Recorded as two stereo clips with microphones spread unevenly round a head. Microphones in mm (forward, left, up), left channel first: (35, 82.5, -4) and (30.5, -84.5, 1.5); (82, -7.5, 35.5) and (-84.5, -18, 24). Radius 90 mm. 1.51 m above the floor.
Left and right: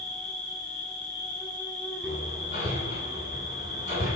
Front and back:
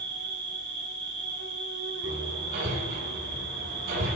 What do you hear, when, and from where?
0.0 s an insect: 170° left, 7 m
2.0 s hammering: 145° left, 9.5 m